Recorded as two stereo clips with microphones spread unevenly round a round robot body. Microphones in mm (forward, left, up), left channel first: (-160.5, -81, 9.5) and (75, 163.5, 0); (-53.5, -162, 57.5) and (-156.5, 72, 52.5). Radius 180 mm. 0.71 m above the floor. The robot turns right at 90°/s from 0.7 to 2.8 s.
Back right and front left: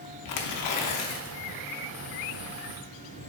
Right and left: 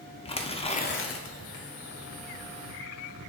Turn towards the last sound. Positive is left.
turn(degrees=50)